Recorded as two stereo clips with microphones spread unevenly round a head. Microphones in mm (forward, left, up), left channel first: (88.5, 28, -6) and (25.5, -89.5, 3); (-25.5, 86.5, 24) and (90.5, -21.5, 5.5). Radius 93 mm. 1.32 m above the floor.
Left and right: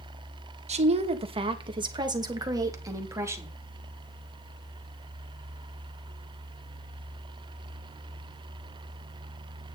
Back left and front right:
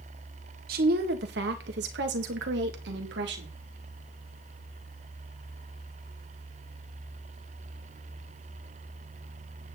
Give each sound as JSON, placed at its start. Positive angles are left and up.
{"t": 0.7, "sound": "a woman speaking", "azimuth_deg": -80, "distance_m": 1.9}